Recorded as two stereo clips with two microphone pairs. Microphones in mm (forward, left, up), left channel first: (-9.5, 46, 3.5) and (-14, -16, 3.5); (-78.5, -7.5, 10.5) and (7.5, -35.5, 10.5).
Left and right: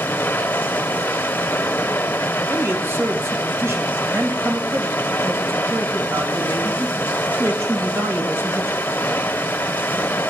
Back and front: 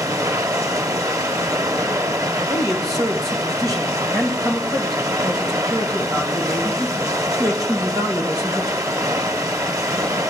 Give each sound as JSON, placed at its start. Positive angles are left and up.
{"t": 0.0, "sound": "running water", "azimuth_deg": 35, "distance_m": 0.8}
{"t": 2.5, "sound": "a man speaking", "azimuth_deg": -60, "distance_m": 2.5}